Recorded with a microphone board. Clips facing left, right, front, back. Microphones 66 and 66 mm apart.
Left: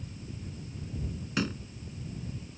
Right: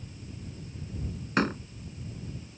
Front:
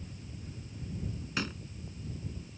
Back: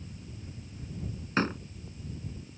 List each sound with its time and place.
1.4 s a door slam: 130° right